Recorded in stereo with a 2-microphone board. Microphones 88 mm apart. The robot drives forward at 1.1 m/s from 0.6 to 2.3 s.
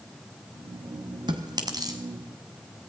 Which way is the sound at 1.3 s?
60° right (ahead or behind).